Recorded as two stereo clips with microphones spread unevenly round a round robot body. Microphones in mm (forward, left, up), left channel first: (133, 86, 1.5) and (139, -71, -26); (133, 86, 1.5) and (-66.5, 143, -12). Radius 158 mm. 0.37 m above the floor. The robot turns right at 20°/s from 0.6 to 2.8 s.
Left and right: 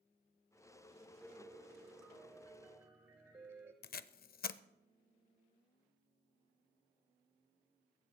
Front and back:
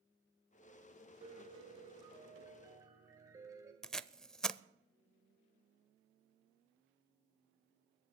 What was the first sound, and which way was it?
A piano, 170° right.